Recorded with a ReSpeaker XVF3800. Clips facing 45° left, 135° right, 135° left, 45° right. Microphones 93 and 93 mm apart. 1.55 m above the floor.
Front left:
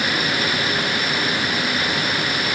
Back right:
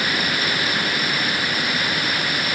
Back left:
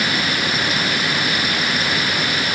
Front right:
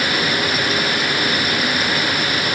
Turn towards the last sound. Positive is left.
No sound to turn to.